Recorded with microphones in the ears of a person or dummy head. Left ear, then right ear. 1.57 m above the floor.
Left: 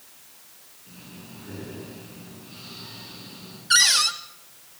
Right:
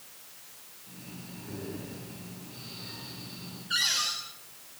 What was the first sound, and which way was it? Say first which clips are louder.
Breathing: left 2 dB; 80° left.